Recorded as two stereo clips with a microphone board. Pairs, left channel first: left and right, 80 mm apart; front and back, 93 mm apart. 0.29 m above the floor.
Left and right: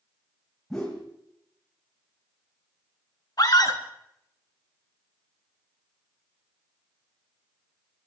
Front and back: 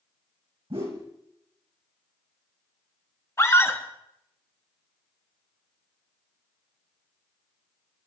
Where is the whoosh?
175° left, 4 m.